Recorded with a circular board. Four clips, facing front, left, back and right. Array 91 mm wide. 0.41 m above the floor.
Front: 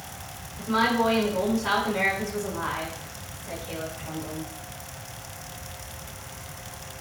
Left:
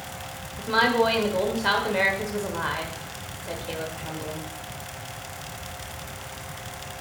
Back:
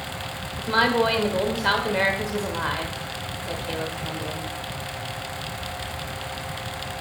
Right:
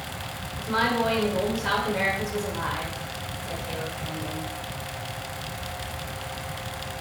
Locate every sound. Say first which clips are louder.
0.6 s a woman speaking: left 3 dB, back 2 dB; 150° left, 1.2 m